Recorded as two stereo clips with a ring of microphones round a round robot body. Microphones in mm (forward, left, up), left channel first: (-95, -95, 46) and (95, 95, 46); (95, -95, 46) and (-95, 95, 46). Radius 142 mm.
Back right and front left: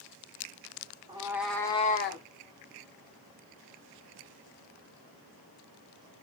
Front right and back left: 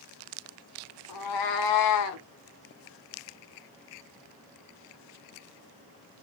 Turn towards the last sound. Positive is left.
turn(degrees=-90)